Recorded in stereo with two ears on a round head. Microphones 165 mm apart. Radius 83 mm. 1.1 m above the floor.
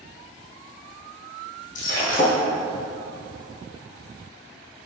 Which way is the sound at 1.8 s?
45° left (ahead or behind).